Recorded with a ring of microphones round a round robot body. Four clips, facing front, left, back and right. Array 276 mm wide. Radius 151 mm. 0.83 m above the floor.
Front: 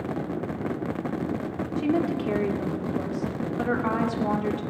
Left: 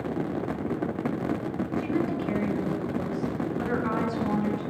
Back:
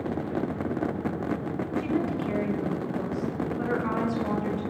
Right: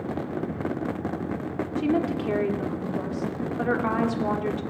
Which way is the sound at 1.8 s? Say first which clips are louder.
Right 4 dB, front 4 dB; 60° right.